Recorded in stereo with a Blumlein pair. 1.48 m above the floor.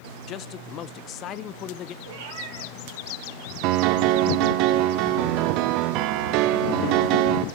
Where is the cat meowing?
55° right, 3.5 m.